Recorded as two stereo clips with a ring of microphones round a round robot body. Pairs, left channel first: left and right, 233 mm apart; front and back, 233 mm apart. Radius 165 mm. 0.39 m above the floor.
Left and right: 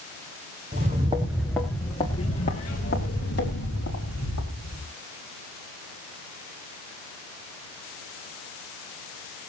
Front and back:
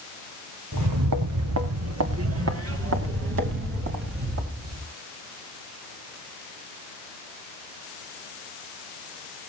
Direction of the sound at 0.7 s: 155° right.